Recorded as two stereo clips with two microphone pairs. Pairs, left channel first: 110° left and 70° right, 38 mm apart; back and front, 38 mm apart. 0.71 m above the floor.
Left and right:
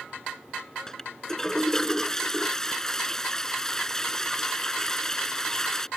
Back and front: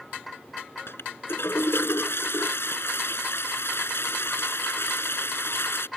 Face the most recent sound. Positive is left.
turn(degrees=-175)